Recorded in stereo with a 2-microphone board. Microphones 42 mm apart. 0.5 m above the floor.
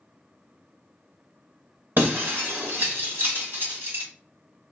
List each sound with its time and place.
2.0 s breaking glass: 65° right (ahead or behind), 1.3 m